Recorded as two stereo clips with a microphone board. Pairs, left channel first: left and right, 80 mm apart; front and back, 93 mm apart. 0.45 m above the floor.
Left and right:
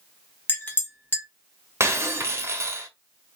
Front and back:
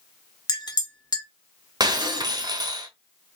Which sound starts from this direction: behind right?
Breaking glass, at 1.8 s.